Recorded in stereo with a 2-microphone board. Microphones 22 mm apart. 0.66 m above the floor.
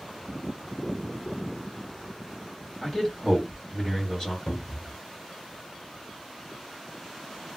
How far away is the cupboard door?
About 0.8 m.